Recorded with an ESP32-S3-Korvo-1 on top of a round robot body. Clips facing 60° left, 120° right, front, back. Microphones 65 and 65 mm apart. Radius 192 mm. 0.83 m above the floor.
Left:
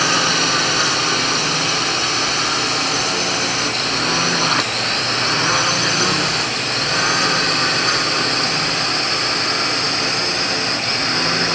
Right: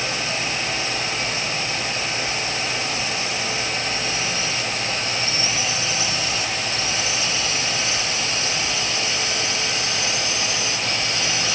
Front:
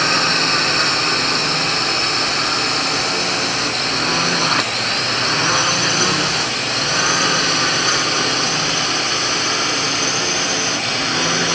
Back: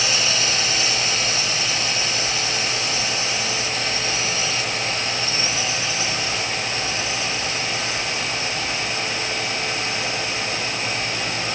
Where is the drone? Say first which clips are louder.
Left 8 dB, front 6 dB; 45° left; by 11.6 s 15° left.